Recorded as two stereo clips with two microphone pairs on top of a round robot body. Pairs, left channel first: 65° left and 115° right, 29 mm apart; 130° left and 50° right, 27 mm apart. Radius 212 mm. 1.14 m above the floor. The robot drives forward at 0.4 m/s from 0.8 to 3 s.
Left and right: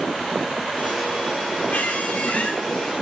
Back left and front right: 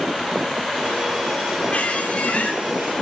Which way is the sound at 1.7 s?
90° left.